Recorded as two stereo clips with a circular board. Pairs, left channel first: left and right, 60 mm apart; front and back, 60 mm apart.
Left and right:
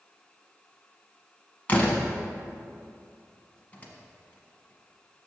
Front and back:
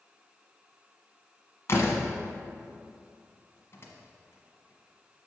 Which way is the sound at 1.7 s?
30° left.